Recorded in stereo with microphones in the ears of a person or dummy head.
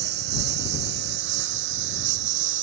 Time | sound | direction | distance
0.0 | a lawn mower | 65° right (ahead or behind) | ?